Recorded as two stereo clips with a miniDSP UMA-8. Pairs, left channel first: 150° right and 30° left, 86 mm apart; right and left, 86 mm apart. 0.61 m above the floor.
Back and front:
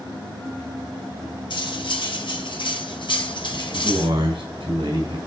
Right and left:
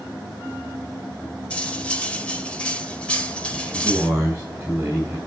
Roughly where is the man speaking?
Ahead.